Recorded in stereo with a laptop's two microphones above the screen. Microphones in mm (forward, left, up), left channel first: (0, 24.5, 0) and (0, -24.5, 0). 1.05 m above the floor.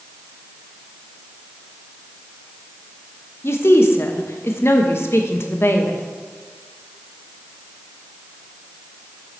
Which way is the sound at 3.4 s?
55° left (ahead or behind).